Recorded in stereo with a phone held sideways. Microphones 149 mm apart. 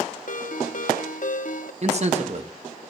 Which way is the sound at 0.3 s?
60° left (ahead or behind).